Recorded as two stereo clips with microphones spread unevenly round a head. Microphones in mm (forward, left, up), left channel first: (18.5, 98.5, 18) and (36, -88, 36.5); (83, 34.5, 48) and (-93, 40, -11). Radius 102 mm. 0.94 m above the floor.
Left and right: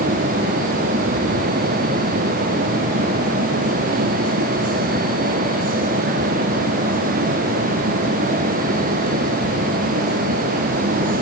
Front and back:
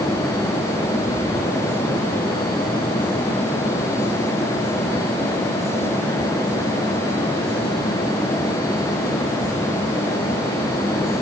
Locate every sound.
Only background noise.